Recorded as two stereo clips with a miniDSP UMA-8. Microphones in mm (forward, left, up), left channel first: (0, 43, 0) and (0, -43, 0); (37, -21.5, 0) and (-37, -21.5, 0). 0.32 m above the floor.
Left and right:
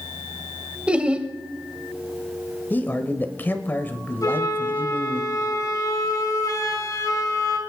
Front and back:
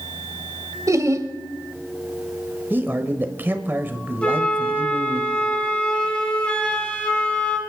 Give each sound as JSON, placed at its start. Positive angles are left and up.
{"t": 0.9, "sound": "laughter", "azimuth_deg": -165, "distance_m": 1.1}
{"t": 2.7, "sound": "a man speaking", "azimuth_deg": 140, "distance_m": 1.1}
{"t": 4.2, "sound": "a flute", "azimuth_deg": 70, "distance_m": 2.0}